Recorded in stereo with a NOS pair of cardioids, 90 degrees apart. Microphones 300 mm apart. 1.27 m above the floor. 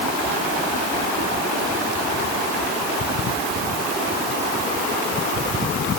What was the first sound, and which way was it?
Only background noise.